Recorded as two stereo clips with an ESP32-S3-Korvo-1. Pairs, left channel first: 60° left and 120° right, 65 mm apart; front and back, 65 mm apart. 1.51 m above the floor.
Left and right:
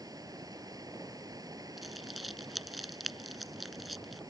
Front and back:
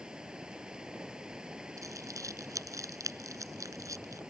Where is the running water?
105° right.